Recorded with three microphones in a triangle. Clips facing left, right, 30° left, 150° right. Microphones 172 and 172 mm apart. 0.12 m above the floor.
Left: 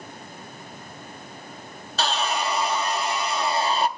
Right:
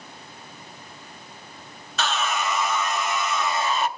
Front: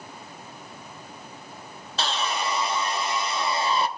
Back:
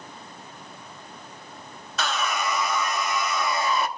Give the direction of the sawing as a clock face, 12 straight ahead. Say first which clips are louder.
Left 1 dB, back 1 dB; 10 o'clock.